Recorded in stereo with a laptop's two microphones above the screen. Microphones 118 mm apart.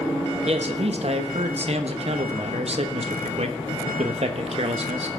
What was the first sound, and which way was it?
A man speaking, 60° right (ahead or behind).